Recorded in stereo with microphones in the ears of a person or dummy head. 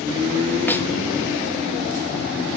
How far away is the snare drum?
About 0.6 m.